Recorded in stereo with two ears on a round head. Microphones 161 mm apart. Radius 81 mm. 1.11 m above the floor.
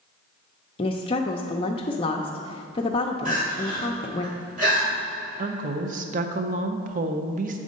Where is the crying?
45° right (ahead or behind), 2.5 m.